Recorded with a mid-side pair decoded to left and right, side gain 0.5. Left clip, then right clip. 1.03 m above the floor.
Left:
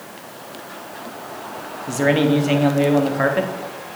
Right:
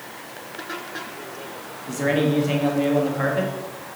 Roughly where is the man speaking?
Ahead left.